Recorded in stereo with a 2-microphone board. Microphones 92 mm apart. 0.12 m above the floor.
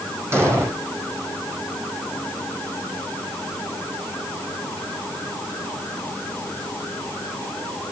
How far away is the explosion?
About 4.5 m.